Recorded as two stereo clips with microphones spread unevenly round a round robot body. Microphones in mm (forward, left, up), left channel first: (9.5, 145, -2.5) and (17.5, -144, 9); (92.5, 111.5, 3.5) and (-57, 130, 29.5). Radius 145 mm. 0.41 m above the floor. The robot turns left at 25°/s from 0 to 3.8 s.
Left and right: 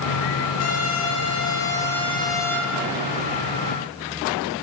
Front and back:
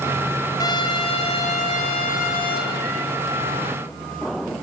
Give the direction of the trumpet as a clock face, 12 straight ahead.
10 o'clock.